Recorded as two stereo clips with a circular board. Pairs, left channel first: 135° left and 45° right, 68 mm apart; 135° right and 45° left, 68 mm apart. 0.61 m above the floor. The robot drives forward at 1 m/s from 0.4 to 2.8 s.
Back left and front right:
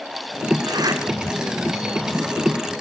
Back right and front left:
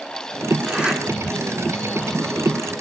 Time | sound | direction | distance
0.7 | a zipper | 30° right | 2.0 m